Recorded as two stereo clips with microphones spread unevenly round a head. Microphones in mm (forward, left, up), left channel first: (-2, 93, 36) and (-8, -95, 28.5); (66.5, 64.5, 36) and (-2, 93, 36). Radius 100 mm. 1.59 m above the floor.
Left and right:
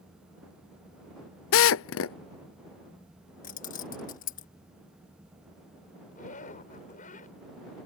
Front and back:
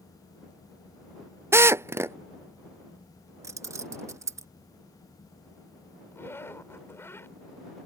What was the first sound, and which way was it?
A drill, 100° left.